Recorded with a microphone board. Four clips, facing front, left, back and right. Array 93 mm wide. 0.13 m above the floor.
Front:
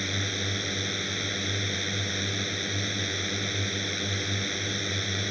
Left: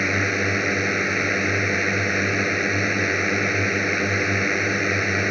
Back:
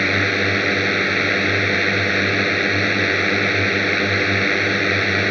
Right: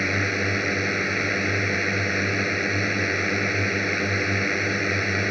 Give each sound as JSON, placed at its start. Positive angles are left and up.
{"t": 0.0, "sound": "a drone", "azimuth_deg": 170}